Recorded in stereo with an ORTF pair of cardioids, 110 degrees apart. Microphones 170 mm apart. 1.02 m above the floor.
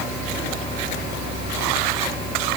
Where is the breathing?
I don't hear breathing.